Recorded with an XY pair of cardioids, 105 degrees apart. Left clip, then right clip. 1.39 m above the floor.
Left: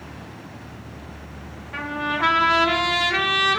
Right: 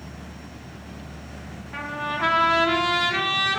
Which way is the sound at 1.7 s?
15° left.